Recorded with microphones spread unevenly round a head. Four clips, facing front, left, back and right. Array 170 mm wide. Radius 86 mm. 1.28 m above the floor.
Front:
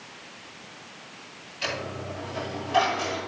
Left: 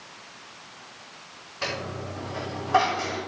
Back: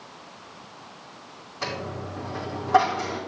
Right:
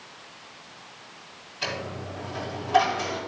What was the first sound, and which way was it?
A dropped coin, 155° left.